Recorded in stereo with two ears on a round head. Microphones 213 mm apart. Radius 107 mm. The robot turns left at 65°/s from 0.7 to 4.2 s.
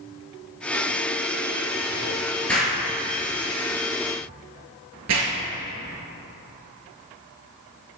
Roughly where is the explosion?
Centre.